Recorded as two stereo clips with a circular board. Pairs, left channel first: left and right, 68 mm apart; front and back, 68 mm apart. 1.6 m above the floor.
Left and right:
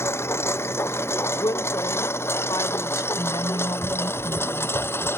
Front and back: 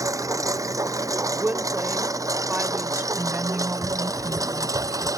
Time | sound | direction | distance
0.0 | a lawn mower | 145° left | ?
1.4 | a woman speaking | 115° left | ?
3.1 | a woman speaking | 110° left | ?